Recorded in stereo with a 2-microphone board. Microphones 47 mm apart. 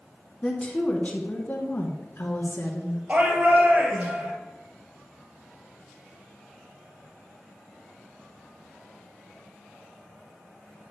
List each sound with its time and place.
0.4 s a woman speaking: 20° left (ahead or behind), 1.3 m; by 3.0 s 55° left (ahead or behind), 2 m
3.1 s a shout: 30° right (ahead or behind), 3 m